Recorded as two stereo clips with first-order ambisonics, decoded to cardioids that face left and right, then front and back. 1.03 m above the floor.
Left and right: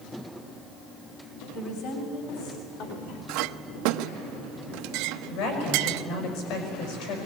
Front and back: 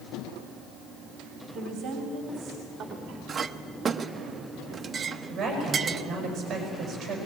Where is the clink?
110° right, 0.7 m.